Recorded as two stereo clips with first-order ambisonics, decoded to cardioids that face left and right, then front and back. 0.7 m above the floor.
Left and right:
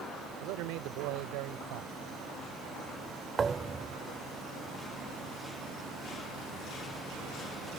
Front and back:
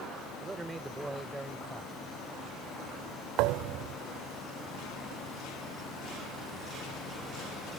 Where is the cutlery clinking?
No cutlery clinking in this recording.